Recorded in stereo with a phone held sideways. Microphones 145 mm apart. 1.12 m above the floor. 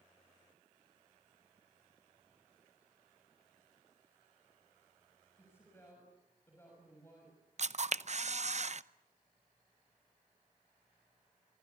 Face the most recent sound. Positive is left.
turn(degrees=-50)  # may be behind; listen again after turning